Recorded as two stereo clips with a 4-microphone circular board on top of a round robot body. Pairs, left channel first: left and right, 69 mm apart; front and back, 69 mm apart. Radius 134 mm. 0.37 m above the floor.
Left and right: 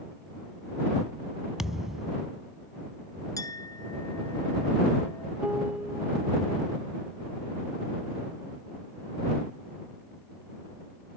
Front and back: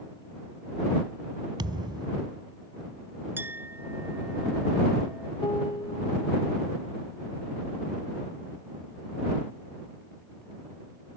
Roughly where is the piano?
Ahead.